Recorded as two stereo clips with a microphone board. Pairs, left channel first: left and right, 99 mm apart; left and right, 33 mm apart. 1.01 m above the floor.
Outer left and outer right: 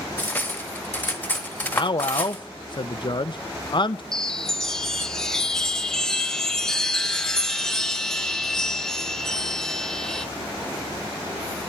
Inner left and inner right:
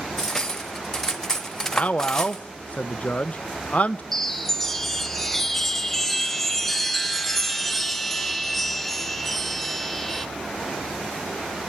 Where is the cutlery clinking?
15° left (ahead or behind), 0.9 m.